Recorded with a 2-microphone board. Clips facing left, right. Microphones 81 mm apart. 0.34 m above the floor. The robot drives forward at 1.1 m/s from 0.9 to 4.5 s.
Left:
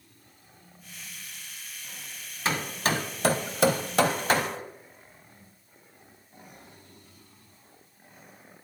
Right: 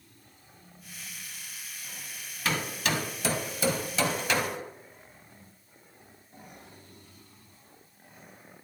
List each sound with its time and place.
2.5 s hammering: 25° left (ahead or behind), 1.6 m; by 4.6 s 35° left (ahead or behind), 1.2 m